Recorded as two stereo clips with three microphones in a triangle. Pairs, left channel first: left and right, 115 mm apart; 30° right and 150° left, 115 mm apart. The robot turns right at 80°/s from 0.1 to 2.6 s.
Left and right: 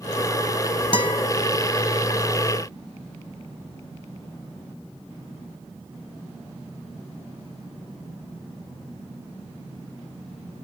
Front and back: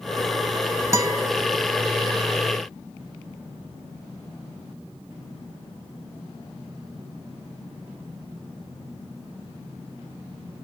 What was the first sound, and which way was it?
A guitar, 95° left.